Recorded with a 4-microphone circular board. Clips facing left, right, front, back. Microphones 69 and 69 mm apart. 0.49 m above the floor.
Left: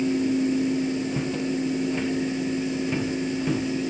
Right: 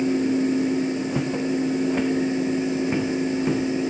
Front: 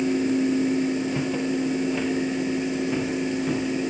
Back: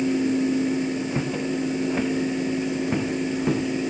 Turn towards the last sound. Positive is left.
turn(degrees=-150)